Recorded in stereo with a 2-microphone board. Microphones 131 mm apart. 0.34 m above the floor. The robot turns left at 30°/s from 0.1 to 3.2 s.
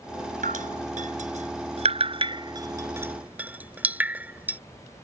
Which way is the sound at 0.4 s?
85° right.